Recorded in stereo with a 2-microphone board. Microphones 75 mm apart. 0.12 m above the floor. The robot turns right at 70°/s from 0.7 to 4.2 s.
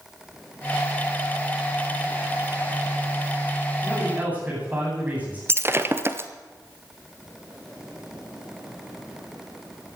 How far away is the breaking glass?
About 1.0 m.